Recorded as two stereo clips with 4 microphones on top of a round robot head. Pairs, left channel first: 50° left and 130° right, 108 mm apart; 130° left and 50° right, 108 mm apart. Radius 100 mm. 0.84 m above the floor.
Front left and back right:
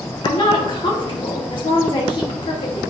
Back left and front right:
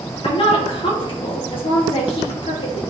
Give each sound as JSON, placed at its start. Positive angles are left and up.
{"t": 0.2, "sound": "a woman speaking", "azimuth_deg": 95, "distance_m": 2.5}